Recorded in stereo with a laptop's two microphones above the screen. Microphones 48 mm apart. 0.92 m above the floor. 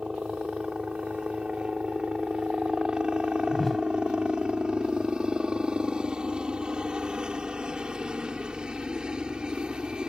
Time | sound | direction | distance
0.0 | a helicopter | 15° right (ahead or behind) | ?
3.5 | a whoosh | 5° left (ahead or behind) | ?